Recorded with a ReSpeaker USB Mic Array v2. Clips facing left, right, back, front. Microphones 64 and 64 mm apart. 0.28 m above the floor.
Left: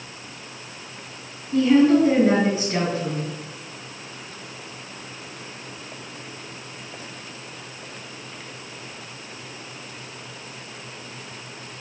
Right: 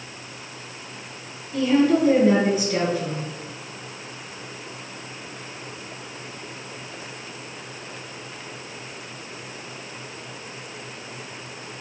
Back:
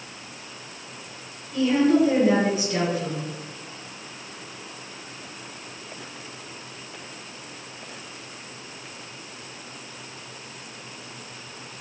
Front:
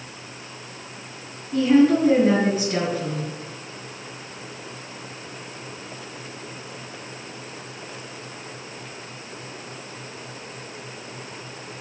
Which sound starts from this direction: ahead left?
A woman speaking, at 1.5 s.